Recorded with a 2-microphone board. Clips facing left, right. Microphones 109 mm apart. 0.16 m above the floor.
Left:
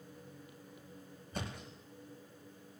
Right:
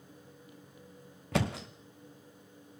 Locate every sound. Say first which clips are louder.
1.3 s a thud: right 12 dB; 90° right, 1.4 m